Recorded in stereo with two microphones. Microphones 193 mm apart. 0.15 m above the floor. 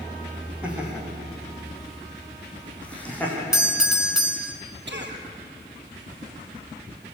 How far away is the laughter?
About 7.5 m.